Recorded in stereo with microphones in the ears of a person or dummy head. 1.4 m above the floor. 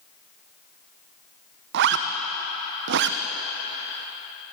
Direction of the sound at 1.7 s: 55° right (ahead or behind).